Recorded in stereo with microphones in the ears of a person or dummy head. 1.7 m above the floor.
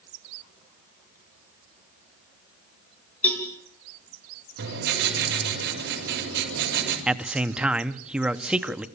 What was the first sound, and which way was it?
A cowbell, 10° left (ahead or behind).